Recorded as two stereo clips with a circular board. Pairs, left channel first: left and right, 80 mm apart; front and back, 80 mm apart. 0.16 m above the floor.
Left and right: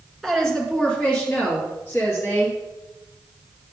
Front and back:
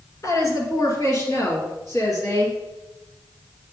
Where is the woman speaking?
5° left, 1.7 m; by 2.6 s 40° left, 2.5 m.